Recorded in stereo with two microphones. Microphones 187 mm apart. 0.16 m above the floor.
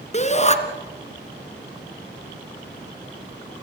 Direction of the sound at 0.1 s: 35° left (ahead or behind).